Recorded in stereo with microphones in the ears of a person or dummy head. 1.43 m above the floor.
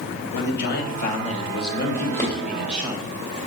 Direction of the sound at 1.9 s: 15° left (ahead or behind).